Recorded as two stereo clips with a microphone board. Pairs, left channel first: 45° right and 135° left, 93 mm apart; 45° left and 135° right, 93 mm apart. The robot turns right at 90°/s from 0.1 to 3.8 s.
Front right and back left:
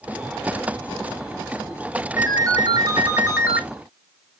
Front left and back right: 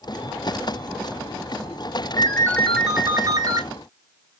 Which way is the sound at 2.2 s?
80° left.